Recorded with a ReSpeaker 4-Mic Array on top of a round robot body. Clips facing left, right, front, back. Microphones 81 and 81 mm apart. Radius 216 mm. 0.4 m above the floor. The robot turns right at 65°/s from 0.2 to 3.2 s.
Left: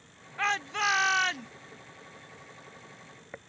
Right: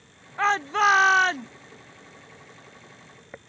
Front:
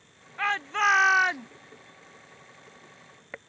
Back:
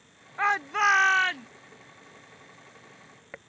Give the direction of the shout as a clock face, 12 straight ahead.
4 o'clock.